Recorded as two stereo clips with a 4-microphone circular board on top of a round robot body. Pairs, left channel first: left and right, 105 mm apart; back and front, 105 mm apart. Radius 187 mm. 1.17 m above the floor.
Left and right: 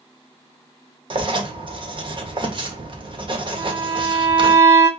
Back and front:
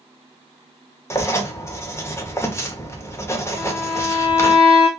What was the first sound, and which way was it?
Writing, 120° right.